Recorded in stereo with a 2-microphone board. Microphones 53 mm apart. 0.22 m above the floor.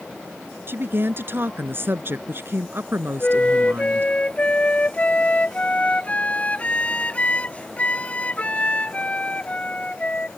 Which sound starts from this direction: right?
A woman speaking, at 0.7 s.